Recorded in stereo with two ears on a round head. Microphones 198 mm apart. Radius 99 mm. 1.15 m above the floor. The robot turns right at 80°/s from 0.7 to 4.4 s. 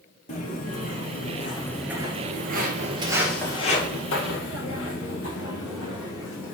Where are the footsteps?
35° left (ahead or behind), 1.8 m; by 6.5 s 60° left (ahead or behind), 3.5 m.